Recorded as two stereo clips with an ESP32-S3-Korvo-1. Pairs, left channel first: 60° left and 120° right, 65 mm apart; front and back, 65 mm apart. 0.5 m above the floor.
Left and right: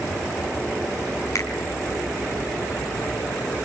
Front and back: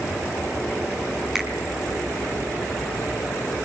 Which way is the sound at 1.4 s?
100° left.